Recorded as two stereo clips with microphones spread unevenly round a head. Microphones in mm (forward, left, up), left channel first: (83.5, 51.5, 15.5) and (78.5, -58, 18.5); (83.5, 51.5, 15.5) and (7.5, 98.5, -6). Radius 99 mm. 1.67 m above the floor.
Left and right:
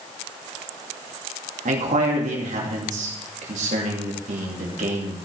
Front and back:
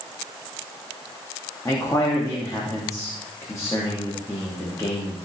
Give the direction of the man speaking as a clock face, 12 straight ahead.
3 o'clock.